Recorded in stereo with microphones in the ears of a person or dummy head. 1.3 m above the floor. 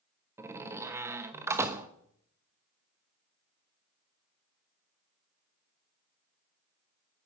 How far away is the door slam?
About 1.0 m.